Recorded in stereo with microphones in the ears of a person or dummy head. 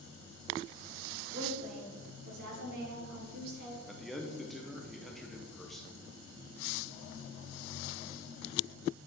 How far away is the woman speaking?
About 1.8 m.